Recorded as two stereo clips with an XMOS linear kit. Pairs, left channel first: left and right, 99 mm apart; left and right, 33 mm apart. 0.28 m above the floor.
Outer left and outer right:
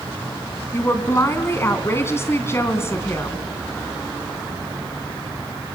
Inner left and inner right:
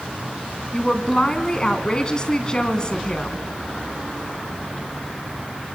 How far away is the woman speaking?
About 3 m.